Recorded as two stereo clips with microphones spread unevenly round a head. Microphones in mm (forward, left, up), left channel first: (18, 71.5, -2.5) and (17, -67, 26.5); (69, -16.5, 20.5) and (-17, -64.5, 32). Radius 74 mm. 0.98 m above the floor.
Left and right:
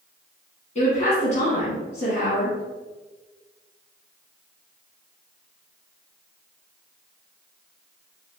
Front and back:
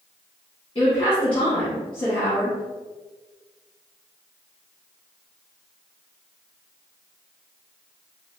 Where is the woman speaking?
70° left, 1.4 m.